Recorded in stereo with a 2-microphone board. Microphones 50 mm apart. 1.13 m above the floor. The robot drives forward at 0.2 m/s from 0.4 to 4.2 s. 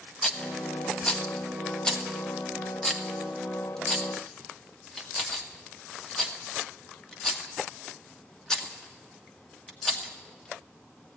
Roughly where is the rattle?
Centre.